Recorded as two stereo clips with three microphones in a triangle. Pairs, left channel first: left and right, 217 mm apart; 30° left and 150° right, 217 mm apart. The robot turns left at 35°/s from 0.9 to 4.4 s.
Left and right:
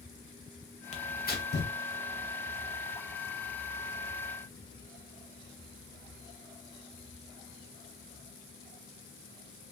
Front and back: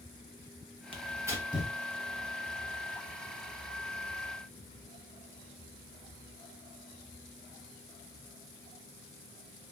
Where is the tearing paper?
150° left, 0.8 m; by 1.7 s 120° left, 0.8 m.